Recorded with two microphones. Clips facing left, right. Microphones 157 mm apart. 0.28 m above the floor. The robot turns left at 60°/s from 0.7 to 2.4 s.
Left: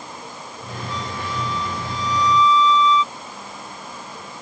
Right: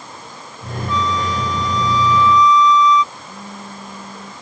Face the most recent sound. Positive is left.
turn(degrees=-50)  # may be behind; listen again after turning